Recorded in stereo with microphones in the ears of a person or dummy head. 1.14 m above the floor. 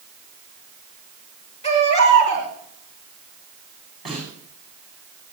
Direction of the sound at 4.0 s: 5° right (ahead or behind).